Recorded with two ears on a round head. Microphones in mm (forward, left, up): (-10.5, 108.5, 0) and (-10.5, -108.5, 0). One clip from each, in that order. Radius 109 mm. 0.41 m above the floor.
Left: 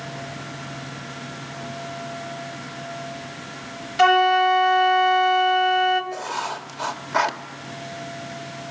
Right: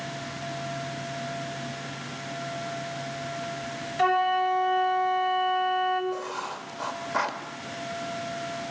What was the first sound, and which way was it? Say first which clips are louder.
A flute: left 7 dB; 45° left (ahead or behind).